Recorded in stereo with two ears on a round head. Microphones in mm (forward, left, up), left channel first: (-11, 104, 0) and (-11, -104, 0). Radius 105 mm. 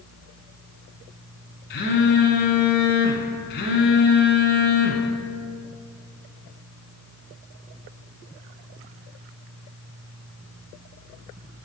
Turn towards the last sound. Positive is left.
turn(degrees=50)  # may be behind; listen again after turning